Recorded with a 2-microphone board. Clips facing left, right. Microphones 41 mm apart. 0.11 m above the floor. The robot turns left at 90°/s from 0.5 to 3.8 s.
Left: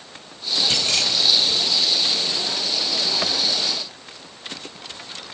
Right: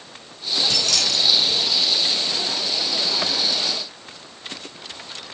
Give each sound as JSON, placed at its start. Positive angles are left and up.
{"t": 0.7, "sound": "keys jangling", "side_deg": 45, "distance_m": 1.8}